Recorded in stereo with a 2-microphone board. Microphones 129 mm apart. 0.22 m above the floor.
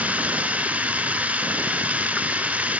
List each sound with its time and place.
0.0 s running water: 10° right (ahead or behind), 1.1 m